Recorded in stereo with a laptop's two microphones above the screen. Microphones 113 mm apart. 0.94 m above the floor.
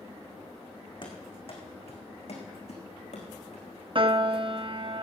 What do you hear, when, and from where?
1.0 s running footsteps: 50° left (ahead or behind), 3.5 m; by 3.6 s 75° left (ahead or behind), 4 m
4.0 s a piano: 50° right (ahead or behind), 0.5 m